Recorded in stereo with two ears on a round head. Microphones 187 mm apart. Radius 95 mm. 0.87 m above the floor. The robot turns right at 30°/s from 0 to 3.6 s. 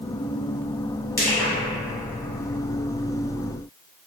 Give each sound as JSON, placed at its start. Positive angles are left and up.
{"t": 1.2, "sound": "crushing", "side_deg": 15, "distance_m": 1.3}